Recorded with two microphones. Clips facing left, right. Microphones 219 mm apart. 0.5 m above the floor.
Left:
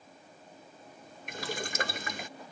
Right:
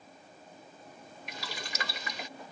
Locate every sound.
1.3 s boiling: 50° left (ahead or behind)